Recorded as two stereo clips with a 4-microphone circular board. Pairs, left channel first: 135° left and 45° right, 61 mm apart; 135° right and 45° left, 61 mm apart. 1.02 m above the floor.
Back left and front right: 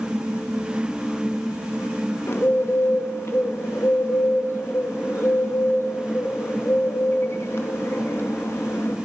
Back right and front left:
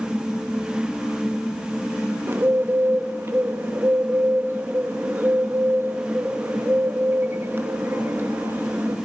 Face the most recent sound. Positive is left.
turn(degrees=95)